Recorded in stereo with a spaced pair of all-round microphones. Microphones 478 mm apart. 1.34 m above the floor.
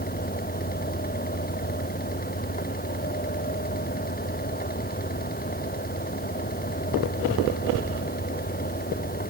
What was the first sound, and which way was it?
A fan, 20° left (ahead or behind).